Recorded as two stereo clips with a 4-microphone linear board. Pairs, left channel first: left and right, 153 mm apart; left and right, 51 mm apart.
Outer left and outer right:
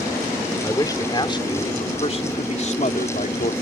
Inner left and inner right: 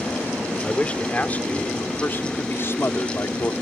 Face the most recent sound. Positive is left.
turn(degrees=65)  # may be behind; listen again after turning